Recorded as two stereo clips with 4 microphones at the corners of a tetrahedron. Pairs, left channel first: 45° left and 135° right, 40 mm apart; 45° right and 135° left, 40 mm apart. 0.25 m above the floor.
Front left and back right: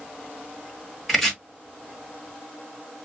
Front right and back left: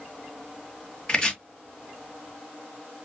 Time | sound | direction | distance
1.1 | chopping | 35° right | 1.5 m